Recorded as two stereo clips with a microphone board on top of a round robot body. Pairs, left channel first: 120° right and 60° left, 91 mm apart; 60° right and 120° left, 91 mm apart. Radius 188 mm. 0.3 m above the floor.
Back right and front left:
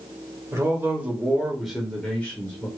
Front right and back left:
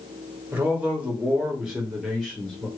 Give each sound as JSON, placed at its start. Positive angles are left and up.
{"t": 0.5, "sound": "a man speaking", "azimuth_deg": 70, "distance_m": 1.7}